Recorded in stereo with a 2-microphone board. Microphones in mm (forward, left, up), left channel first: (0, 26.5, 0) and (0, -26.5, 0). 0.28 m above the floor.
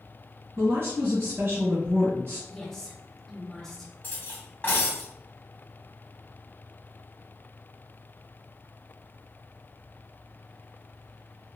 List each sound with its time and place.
0.6 s a woman speaking: 55° right (ahead or behind), 1.7 m
2.5 s a woman speaking: 10° left (ahead or behind), 1.0 m
4.0 s cutlery clinking: 35° left (ahead or behind), 1.2 m